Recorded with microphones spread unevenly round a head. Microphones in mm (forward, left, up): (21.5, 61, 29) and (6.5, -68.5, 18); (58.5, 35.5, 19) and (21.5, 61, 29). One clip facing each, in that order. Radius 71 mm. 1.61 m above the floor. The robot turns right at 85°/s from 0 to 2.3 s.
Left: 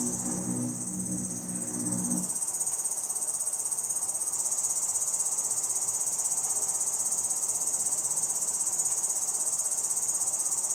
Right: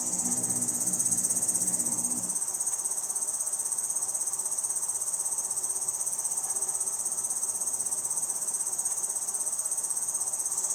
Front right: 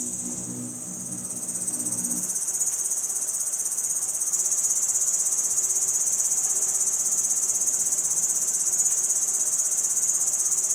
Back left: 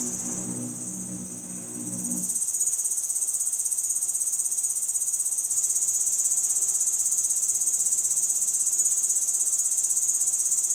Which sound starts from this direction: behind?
An insect, at 0.0 s.